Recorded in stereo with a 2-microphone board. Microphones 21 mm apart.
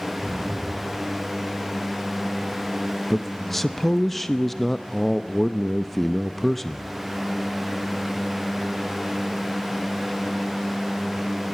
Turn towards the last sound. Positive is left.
turn(degrees=5)  # may be behind; listen again after turning